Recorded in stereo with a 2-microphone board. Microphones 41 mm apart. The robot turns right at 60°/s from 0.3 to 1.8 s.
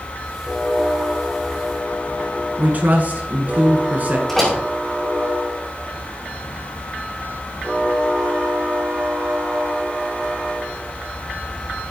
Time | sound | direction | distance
2.6 | a man speaking | 45° right (ahead or behind) | 1.6 m
4.3 | a door slam | 5° left (ahead or behind) | 5 m